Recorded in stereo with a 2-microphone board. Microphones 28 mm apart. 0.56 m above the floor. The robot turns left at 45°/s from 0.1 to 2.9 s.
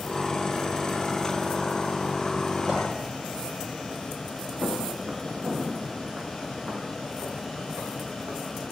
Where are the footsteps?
75° right (ahead or behind), 3.5 m.